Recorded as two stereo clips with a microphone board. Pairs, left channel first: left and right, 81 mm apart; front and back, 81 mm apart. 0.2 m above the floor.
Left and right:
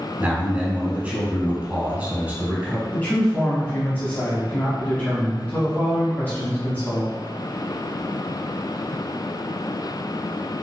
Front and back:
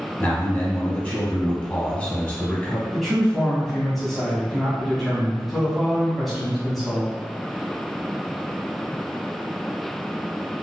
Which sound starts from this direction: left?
A man speaking, at 2.9 s.